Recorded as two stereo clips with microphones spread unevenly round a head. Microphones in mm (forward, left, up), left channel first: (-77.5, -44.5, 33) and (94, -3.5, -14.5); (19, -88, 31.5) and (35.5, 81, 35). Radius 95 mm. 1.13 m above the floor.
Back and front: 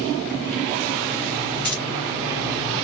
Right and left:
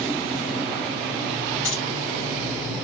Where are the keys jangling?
85° right, 3 m.